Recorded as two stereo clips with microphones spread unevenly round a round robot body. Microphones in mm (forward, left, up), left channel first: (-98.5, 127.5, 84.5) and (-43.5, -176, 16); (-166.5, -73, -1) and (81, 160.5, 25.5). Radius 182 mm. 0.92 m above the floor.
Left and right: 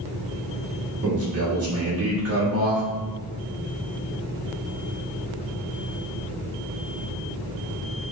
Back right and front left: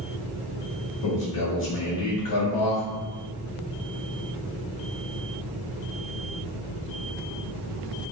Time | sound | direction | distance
1.0 | a man speaking | 110° right | 1.8 m